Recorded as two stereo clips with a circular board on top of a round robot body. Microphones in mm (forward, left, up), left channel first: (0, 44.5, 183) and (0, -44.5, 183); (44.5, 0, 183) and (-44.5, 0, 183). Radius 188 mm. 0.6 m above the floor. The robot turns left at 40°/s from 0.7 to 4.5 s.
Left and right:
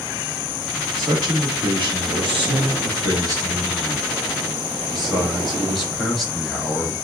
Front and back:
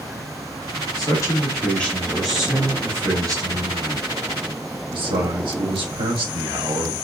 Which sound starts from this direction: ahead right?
A man speaking, at 1.0 s.